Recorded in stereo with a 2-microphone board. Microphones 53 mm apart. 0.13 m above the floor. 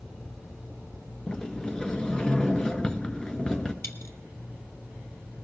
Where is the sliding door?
15° left (ahead or behind), 1.2 m.